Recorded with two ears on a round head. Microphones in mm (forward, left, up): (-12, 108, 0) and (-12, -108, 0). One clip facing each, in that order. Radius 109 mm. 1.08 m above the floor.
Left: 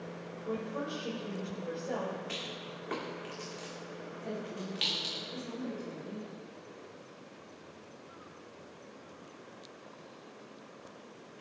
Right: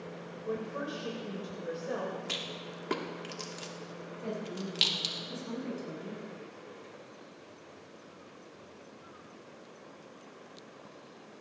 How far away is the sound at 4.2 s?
About 9 m.